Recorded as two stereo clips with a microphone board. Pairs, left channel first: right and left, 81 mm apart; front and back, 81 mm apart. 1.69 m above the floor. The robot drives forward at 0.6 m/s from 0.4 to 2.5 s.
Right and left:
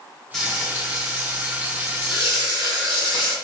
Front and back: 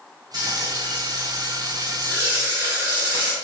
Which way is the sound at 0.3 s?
175° right.